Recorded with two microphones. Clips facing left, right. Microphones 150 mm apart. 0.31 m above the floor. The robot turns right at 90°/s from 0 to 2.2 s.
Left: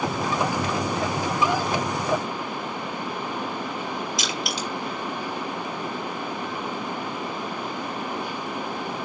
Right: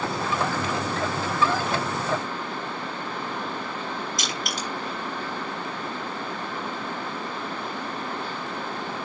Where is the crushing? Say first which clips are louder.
Left 2 dB; 45° right (ahead or behind), 5 m.